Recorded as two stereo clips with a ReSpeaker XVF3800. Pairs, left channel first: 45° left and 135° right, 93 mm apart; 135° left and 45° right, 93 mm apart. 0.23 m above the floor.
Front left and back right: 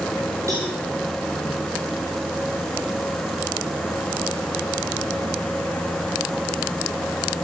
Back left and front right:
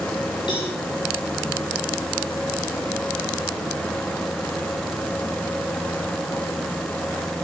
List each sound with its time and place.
0.5 s a cowbell: 170° left, 10 m